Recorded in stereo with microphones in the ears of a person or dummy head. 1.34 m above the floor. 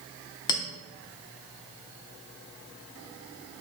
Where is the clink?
20° left (ahead or behind), 0.5 m.